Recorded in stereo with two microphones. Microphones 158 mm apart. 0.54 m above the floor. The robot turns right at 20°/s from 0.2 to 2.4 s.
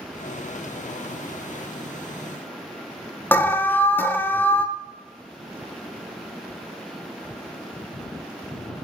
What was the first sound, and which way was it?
An alarm, 10° left (ahead or behind).